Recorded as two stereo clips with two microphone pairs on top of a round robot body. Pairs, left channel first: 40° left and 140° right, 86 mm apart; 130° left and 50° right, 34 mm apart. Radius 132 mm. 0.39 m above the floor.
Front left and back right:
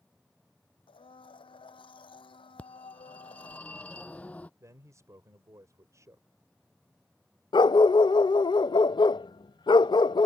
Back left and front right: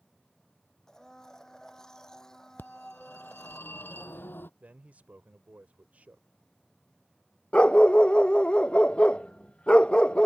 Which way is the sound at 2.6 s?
115° left.